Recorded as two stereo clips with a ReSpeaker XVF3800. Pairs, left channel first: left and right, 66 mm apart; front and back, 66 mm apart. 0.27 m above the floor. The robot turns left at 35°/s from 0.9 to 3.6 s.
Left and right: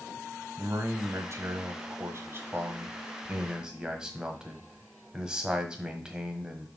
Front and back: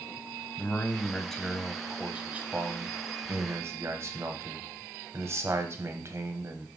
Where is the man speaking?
70° right, 1.2 m; by 6.7 s 165° right, 1.2 m.